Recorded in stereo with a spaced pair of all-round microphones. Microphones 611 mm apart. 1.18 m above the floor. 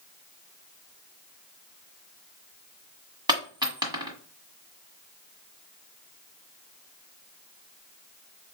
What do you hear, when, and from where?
3.3 s a dropped coin: 5° right (ahead or behind), 1.6 m